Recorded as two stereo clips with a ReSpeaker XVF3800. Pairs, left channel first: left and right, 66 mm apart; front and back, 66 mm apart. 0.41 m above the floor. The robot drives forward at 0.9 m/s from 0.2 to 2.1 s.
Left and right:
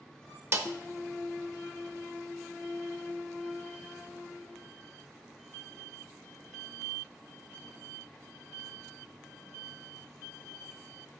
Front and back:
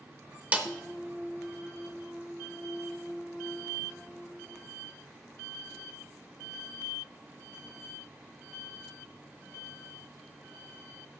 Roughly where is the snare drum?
Behind right.